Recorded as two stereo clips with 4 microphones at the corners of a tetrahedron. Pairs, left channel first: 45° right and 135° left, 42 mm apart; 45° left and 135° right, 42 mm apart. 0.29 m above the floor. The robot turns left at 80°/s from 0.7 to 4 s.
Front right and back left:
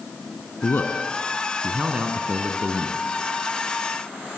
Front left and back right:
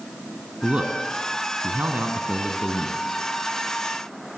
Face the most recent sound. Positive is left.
turn(degrees=25)